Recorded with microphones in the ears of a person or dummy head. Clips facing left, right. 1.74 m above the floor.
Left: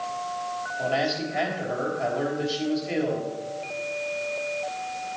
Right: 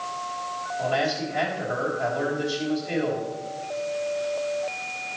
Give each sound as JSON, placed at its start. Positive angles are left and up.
{"t": 0.8, "sound": "a man speaking", "side_deg": 5, "distance_m": 3.5}